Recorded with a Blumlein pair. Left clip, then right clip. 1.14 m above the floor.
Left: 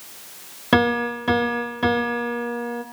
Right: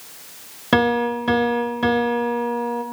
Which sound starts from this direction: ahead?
A piano, at 0.7 s.